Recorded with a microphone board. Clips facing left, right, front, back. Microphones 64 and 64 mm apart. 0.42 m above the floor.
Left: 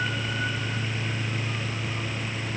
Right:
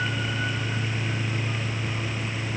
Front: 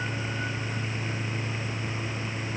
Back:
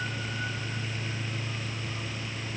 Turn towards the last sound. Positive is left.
No sound to turn to.